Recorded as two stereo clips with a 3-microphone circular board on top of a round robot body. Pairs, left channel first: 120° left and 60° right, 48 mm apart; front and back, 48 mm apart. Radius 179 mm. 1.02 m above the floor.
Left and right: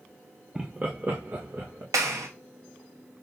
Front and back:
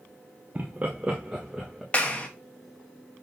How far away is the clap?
About 1.2 m.